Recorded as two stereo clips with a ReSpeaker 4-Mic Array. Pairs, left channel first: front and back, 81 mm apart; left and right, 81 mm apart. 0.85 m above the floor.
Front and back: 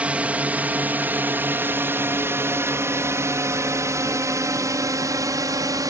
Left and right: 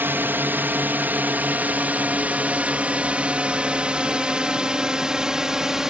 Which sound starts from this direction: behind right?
A drone, at 0.0 s.